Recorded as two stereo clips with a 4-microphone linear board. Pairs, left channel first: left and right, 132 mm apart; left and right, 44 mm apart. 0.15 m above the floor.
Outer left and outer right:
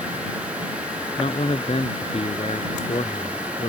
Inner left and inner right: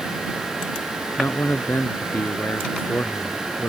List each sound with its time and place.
1.2 s a man speaking: 50° left (ahead or behind)